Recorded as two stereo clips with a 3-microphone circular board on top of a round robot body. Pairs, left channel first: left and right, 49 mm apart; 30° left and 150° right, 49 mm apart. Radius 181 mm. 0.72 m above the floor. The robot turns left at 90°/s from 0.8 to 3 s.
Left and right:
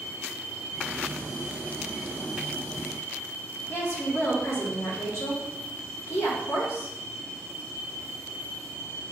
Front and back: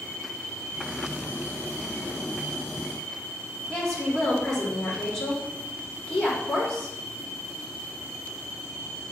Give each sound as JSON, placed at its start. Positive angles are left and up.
{"t": 3.7, "sound": "a woman speaking", "azimuth_deg": 105, "distance_m": 3.5}